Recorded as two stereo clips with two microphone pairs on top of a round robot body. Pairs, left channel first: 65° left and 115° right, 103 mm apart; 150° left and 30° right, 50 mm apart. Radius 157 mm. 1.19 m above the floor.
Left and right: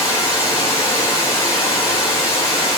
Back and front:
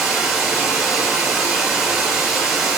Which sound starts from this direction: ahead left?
Running water, at 0.0 s.